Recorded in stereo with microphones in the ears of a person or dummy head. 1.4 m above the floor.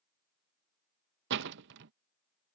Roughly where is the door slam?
Right.